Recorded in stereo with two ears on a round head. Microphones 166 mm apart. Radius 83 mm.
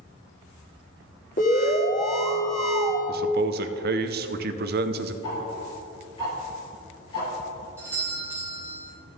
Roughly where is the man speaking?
Right.